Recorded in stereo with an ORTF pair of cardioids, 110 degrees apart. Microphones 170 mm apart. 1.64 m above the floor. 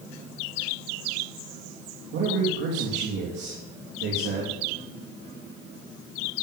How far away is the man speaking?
About 3.5 m.